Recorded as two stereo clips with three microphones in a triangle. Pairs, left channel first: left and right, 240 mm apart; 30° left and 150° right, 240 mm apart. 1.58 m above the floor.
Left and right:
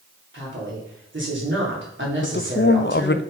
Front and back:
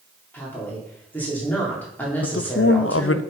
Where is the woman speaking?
55° right, 3.5 m.